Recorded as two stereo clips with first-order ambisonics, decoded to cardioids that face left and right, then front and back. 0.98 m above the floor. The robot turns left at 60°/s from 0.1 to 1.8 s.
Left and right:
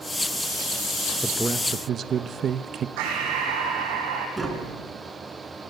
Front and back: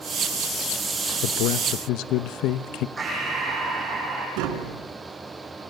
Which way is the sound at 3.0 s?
105° right.